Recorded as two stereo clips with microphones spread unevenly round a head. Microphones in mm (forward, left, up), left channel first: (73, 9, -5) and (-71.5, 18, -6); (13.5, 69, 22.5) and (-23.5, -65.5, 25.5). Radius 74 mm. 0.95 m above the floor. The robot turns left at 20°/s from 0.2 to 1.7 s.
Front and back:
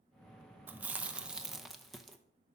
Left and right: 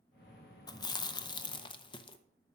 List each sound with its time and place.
0.7 s chewing: 110° left, 0.6 m; by 2.2 s 90° left, 0.6 m